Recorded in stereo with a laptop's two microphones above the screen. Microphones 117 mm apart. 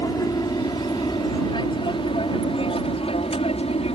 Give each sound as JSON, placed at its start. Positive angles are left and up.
{"t": 0.0, "sound": "an aircraft", "side_deg": 35}